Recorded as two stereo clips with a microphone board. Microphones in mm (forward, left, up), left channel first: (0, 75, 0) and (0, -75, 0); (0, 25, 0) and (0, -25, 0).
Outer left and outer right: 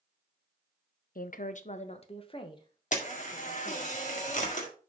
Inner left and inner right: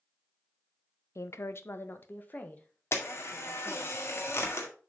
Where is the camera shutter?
55° left (ahead or behind), 1.9 m.